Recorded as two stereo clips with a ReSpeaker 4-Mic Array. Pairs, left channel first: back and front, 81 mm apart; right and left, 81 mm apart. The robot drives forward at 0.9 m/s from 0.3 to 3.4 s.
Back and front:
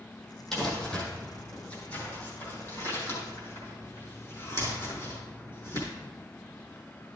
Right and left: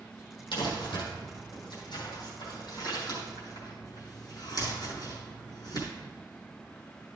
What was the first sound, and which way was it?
Crumpling, 95° right.